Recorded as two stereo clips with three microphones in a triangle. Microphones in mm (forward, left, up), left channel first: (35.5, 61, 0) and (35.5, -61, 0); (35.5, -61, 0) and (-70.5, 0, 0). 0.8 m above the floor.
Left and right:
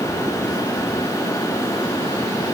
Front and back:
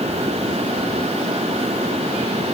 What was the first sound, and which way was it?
Only background noise.